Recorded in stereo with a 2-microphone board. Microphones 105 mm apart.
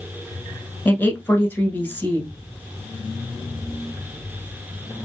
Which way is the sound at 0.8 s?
20° left (ahead or behind).